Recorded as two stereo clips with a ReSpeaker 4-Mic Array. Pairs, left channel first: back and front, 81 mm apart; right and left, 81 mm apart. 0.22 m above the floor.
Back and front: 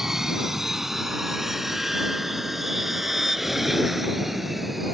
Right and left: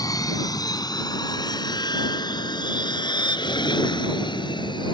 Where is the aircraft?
85° right; by 4.9 s 90° right.